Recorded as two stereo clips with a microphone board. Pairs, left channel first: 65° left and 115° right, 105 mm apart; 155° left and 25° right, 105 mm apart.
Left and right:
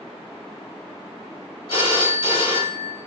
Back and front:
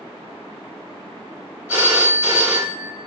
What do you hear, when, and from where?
1.7 s a phone ringing: 45° left, 1.3 m